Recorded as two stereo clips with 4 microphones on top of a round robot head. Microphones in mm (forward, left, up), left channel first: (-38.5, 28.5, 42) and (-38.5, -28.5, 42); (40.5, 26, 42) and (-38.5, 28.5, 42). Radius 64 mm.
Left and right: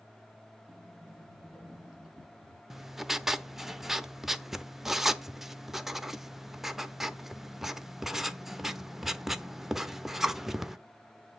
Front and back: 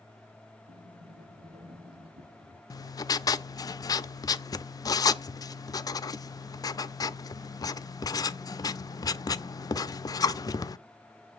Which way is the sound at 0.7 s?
170° right.